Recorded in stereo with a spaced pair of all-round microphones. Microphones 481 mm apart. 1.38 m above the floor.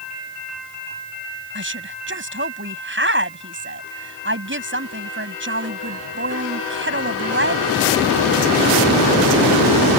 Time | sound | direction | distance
1.6 | a woman speaking | 25° right (ahead or behind) | ?